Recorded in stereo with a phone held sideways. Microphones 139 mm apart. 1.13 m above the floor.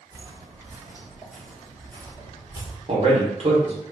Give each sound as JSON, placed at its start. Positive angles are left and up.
{"t": 0.1, "sound": "footsteps", "side_deg": -25, "distance_m": 1.7}
{"t": 2.9, "sound": "a man speaking", "side_deg": -45, "distance_m": 1.3}